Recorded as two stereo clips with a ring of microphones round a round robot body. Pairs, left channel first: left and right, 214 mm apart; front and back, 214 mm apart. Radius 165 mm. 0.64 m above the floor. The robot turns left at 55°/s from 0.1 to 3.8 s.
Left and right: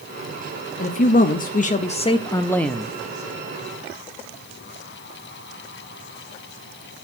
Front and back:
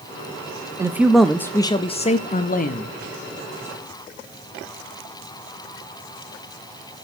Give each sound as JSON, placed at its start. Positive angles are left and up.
{"t": 0.8, "sound": "a man speaking", "azimuth_deg": 110, "distance_m": 0.7}